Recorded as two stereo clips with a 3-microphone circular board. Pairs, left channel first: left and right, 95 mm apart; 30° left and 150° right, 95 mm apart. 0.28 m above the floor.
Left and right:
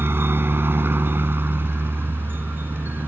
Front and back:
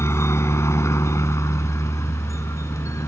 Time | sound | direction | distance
0.0 | a helicopter | 30° right | ?